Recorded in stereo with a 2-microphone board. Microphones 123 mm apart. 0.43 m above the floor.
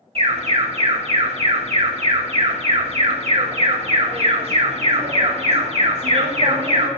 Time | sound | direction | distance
0.1 | an alarm | 55° right (ahead or behind) | 1.9 m